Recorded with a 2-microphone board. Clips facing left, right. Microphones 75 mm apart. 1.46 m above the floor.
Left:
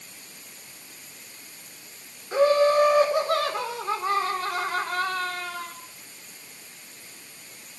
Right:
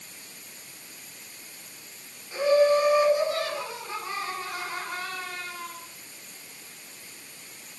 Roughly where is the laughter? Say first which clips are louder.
Left 1 dB; left.